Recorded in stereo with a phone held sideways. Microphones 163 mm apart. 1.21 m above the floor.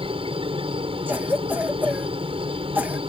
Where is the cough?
10° right (ahead or behind).